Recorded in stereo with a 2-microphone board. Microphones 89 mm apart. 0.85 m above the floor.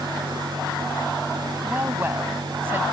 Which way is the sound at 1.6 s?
25° right (ahead or behind).